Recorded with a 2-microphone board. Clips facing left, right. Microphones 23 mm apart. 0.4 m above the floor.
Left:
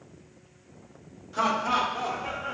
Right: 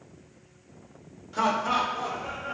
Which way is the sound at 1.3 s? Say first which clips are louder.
Even; 10° right (ahead or behind).